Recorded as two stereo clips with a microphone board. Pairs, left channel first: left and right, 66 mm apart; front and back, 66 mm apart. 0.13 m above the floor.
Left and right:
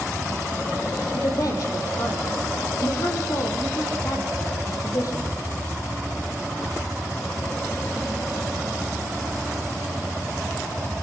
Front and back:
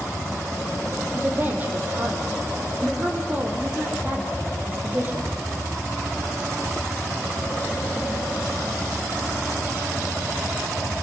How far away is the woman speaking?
About 5.5 m.